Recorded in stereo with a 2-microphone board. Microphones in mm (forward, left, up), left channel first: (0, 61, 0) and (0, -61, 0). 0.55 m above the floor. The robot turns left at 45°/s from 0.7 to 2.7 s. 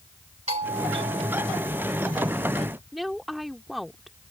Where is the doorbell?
110° right; by 2.1 s 170° right.